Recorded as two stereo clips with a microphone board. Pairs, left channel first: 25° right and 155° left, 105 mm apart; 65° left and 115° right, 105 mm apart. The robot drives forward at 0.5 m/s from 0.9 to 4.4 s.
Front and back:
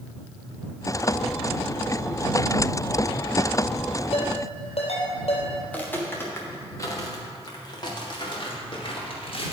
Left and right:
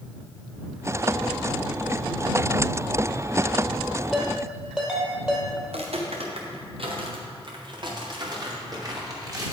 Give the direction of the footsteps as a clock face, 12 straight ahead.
3 o'clock.